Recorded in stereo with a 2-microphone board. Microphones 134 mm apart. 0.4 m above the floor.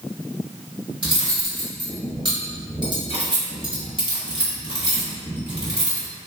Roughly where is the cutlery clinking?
Right.